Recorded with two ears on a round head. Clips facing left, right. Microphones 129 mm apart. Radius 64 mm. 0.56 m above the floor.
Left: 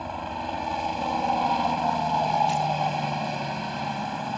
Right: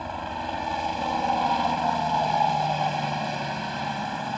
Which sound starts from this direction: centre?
A helicopter, at 0.0 s.